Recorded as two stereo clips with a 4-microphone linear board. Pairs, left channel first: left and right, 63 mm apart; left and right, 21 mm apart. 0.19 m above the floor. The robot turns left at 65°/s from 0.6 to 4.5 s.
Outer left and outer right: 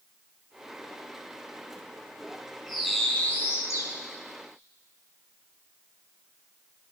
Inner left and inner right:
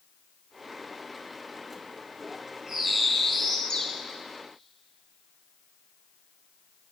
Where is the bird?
165° right, 2.5 m; by 3.9 s 110° left, 2.5 m.